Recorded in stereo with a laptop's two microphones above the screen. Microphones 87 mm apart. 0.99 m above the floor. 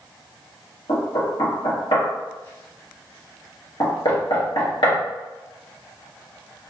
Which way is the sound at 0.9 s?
70° left (ahead or behind).